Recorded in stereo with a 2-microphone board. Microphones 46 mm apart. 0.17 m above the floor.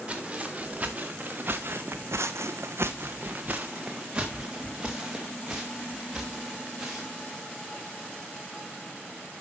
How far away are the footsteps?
About 2 m.